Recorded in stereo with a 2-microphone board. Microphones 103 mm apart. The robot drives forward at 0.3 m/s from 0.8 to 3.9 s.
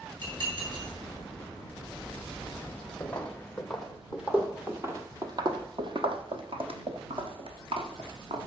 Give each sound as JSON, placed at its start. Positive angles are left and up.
{"t": 0.2, "sound": "dishes clattering", "side_deg": -55, "distance_m": 6.0}
{"t": 3.0, "sound": "footsteps", "side_deg": 15, "distance_m": 1.4}